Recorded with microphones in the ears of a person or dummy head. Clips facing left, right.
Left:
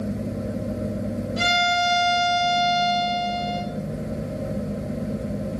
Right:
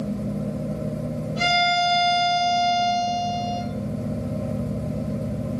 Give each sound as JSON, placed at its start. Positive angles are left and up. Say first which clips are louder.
{"t": 1.4, "sound": "a violin", "louder": "right 2 dB", "side_deg": 25, "distance_m": 1.2}